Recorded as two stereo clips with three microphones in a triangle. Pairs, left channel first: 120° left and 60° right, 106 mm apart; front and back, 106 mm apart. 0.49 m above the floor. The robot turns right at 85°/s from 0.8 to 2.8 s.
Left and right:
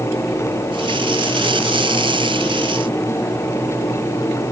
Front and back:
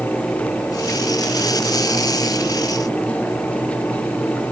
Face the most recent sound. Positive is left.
No sound to turn to.